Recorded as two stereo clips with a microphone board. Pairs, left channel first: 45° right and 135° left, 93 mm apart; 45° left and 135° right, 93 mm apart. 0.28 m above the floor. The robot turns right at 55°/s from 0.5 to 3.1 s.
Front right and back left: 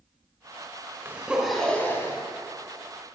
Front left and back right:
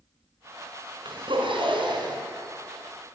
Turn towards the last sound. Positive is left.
turn(degrees=-50)